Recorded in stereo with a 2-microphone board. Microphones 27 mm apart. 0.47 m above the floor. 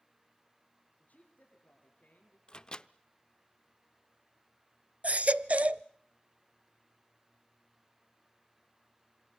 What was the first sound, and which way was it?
A man speaking, 65° left (ahead or behind).